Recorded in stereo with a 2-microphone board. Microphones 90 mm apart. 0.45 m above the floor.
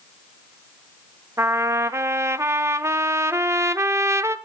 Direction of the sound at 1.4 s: 30° right (ahead or behind).